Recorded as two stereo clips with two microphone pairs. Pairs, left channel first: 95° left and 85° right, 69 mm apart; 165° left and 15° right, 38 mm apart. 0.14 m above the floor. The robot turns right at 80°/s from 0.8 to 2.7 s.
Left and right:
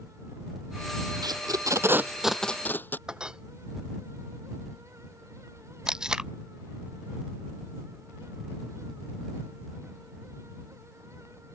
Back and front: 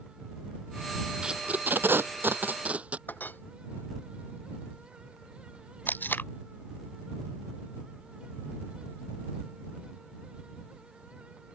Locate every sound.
1.2 s tape being pulled: 85° right; by 3.0 s 35° left
3.1 s a clink: 165° right
5.9 s tape being pulled: 165° right